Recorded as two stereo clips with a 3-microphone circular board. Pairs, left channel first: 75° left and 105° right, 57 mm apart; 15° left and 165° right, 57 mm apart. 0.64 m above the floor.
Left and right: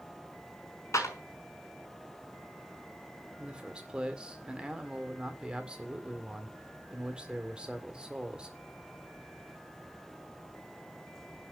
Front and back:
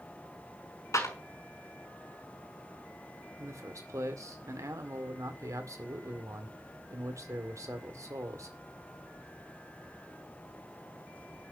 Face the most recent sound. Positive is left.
turn(degrees=-175)